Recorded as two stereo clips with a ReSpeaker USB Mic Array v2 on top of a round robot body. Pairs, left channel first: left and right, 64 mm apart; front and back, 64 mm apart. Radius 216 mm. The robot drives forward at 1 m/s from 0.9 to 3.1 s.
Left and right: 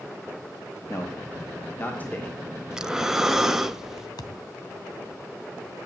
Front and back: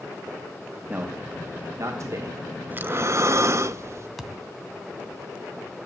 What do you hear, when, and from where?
0.9 s a man speaking: 120° left, 1.4 m; by 2.4 s 155° left, 2.5 m
2.7 s breathing: 160° right, 0.9 m; by 4.1 s 170° right, 1.1 m
4.2 s a thud: 90° left, 1.3 m